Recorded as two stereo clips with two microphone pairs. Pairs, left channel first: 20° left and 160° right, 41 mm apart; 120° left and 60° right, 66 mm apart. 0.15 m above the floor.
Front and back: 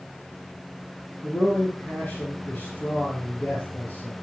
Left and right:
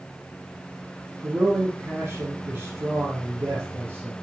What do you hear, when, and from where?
1.2 s a man speaking: 20° right, 3.5 m